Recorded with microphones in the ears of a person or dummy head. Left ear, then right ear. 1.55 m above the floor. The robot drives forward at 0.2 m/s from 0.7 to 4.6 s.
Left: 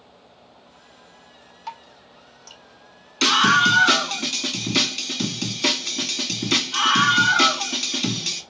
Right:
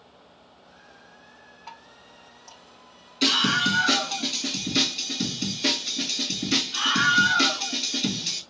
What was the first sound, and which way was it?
Dripping, 80° left.